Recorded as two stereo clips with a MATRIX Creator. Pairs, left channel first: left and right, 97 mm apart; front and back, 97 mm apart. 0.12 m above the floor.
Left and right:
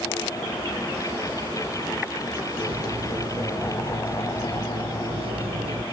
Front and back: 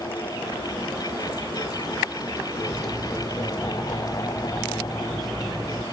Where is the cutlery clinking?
90° right.